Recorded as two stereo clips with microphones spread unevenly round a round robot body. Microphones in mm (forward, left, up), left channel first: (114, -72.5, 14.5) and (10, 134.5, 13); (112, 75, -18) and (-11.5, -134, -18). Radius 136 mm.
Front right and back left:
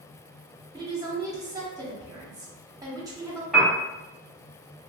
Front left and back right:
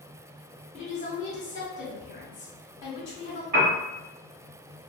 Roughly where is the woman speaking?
Ahead left.